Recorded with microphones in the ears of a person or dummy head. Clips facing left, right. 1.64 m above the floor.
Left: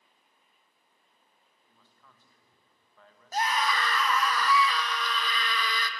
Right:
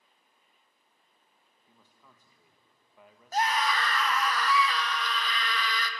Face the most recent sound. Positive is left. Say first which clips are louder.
# right 1 dB
turn(degrees=75)  # may be behind; listen again after turning